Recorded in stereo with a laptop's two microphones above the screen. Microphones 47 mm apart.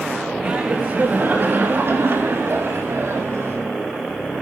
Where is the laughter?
25° right (ahead or behind), 1.5 m; by 3.6 s 70° right (ahead or behind), 2.5 m.